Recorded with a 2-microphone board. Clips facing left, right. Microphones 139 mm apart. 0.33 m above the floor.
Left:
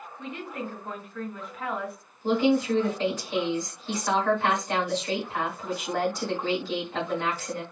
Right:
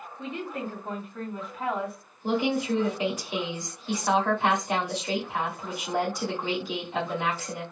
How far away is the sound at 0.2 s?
About 1.4 m.